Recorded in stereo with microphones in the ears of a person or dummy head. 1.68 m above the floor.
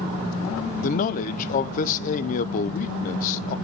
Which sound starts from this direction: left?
A man speaking, at 0.8 s.